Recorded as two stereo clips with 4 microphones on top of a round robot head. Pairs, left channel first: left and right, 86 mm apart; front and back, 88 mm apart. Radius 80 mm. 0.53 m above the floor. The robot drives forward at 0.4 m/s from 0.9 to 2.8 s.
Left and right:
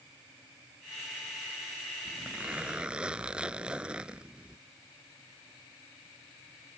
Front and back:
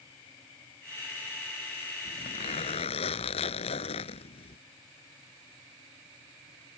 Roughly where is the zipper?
Ahead.